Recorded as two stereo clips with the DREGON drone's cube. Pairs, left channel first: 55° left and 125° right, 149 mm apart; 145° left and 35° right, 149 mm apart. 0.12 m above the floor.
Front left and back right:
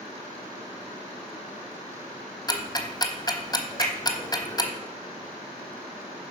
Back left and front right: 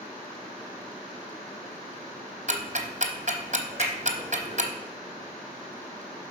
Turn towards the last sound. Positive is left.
turn(degrees=105)